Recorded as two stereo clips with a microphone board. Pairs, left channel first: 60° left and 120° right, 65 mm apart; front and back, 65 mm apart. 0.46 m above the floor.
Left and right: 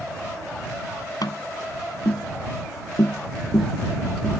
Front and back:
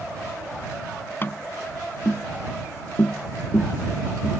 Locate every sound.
1.2 s tapping: 55° left